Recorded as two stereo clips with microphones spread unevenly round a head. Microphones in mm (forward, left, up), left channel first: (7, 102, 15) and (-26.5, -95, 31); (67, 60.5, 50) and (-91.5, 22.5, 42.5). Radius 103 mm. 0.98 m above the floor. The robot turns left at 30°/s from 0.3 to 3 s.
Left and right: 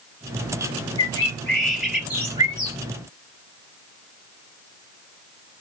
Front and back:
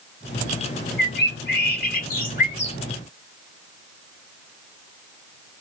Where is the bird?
10° left, 1.3 m; by 2.8 s 45° right, 1.3 m.